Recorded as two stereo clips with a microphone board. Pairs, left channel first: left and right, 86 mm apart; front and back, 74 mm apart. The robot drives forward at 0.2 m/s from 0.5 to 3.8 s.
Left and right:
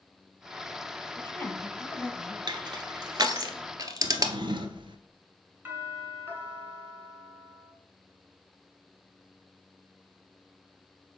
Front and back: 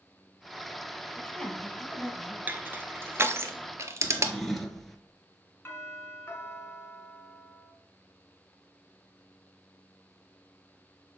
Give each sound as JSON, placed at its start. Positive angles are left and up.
{"t": 1.2, "sound": "a woman speaking", "azimuth_deg": 75, "distance_m": 1.0}
{"t": 2.5, "sound": "crushing", "azimuth_deg": -115, "distance_m": 0.8}
{"t": 4.0, "sound": "a drawer", "azimuth_deg": -90, "distance_m": 0.8}
{"t": 5.7, "sound": "a doorbell", "azimuth_deg": -45, "distance_m": 1.9}